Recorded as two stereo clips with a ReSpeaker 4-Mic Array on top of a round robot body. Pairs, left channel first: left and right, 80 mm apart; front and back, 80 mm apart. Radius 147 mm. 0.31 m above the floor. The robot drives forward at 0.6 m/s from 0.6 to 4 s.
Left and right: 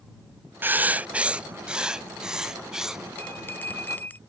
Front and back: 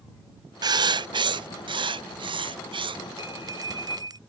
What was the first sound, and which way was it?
Writing, 155° right.